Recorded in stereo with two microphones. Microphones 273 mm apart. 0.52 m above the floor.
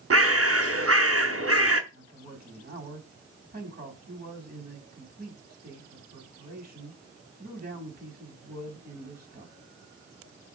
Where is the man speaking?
35° right (ahead or behind), 4 m.